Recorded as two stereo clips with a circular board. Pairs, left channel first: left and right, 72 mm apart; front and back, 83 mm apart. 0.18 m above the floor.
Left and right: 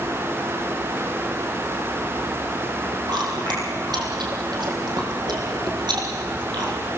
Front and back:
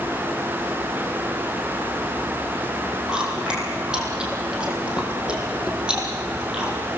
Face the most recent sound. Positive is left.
turn(degrees=-100)